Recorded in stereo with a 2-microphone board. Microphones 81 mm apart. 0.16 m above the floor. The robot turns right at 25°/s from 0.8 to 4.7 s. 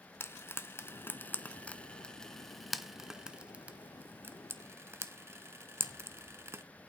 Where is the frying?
30° left (ahead or behind), 0.7 m; by 6.6 s 30° right (ahead or behind), 0.7 m.